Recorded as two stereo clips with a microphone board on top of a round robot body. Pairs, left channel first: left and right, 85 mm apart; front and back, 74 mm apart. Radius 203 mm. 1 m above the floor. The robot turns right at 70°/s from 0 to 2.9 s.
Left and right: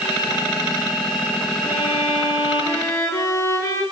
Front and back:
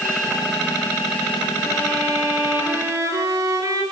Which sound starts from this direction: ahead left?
A violin, at 1.6 s.